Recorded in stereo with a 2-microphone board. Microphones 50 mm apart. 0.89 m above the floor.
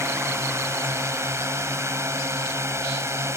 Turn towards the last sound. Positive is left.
turn(degrees=-65)  # may be behind; listen again after turning